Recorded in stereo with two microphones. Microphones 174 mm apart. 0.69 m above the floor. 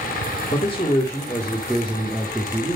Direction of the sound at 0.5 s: 30° left (ahead or behind).